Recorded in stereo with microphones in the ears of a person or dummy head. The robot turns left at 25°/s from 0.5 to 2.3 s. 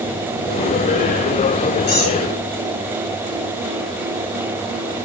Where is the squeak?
25° left (ahead or behind), 0.7 m.